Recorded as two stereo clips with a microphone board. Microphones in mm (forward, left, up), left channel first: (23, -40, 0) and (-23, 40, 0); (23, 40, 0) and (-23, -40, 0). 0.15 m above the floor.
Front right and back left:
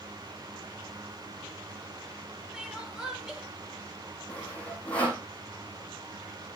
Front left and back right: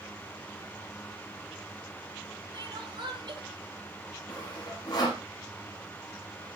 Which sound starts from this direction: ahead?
Sawing, at 4.3 s.